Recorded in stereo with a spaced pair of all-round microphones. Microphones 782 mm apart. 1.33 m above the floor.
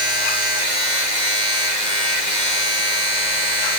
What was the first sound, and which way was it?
A machine running, 60° right (ahead or behind).